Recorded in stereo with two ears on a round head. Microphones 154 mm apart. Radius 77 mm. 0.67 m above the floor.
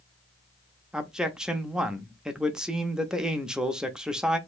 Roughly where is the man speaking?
Centre.